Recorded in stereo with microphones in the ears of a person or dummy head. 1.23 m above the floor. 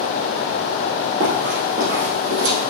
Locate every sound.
1.2 s running footsteps: 35° right (ahead or behind), 1.7 m; by 2.7 s 55° right (ahead or behind), 2 m